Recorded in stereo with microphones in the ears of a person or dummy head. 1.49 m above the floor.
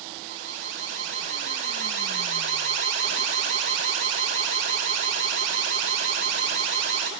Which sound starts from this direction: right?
An alarm, at 0.2 s.